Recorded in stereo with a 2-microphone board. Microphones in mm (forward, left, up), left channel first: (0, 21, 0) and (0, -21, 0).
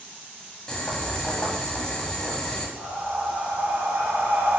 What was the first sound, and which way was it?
Boiling, 20° left (ahead or behind).